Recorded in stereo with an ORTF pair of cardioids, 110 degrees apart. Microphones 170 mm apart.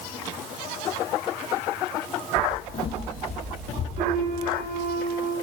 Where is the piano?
45° right, 8.5 m.